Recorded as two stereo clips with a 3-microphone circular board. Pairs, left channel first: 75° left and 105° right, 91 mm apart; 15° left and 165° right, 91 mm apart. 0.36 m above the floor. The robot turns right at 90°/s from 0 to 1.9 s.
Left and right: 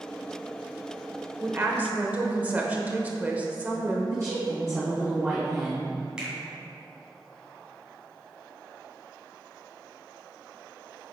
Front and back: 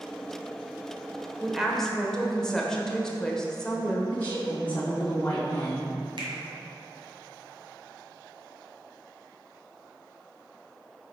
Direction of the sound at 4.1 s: 55° right.